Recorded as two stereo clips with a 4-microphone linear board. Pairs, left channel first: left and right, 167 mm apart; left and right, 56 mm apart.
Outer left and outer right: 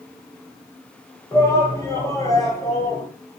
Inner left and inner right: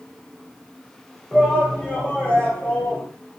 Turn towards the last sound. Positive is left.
turn(degrees=25)  # may be behind; listen again after turning